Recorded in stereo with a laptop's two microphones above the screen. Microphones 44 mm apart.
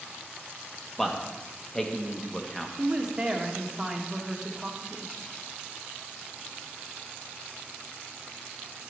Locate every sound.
1.0 s a man speaking: 15° left (ahead or behind), 1.4 m
2.8 s a woman speaking: 10° right (ahead or behind), 1.8 m